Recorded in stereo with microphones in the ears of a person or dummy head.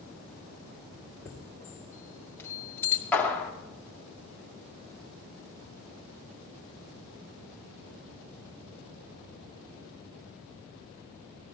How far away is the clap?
About 2.5 m.